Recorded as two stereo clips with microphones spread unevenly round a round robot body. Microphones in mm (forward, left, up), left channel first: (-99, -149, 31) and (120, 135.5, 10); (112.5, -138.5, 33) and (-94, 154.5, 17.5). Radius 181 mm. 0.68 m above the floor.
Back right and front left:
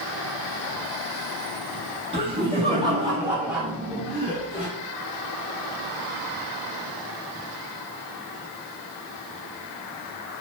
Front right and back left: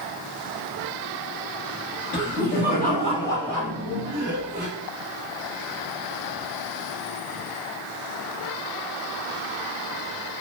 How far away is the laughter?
About 1.2 m.